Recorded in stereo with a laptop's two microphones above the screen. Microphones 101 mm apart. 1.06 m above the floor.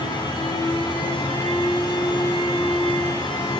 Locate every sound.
0.0 s a fan: 50° left (ahead or behind), 9 m